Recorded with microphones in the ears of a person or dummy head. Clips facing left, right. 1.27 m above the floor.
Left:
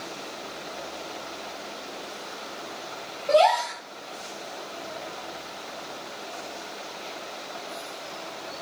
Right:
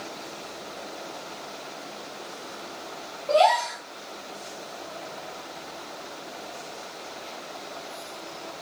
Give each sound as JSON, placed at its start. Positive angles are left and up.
{"t": 3.3, "sound": "a gasp", "side_deg": 15, "distance_m": 1.2}